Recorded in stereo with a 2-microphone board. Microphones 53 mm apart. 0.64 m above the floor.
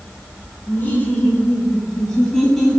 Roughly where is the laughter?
Left.